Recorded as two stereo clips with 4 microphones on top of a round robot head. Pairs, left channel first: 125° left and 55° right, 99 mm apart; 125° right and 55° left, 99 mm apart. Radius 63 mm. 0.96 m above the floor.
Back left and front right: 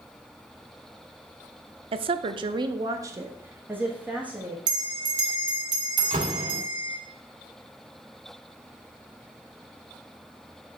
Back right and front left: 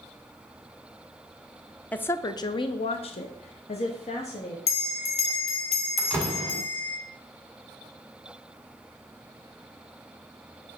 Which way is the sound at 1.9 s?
50° right.